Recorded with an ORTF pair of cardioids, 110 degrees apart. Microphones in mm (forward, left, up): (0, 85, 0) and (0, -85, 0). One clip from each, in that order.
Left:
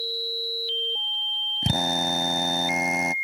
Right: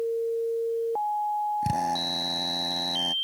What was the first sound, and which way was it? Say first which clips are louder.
A drill: left 3 dB; 30° left.